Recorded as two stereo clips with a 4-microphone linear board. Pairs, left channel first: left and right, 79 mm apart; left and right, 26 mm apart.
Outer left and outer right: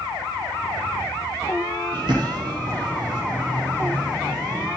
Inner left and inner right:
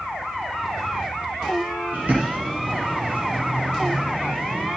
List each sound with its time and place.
1.9 s a bird: 75° right (ahead or behind), 5.5 m